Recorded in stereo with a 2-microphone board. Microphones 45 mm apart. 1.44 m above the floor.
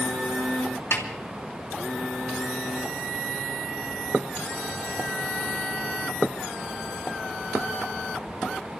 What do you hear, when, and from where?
0.9 s a snare drum: 80° left, 2 m